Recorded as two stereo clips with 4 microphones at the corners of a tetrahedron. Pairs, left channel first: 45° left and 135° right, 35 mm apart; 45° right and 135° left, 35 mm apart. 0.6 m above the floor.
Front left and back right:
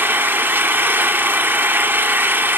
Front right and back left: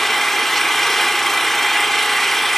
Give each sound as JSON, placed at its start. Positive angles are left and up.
{"t": 0.0, "sound": "an engine running", "azimuth_deg": -125, "distance_m": 1.0}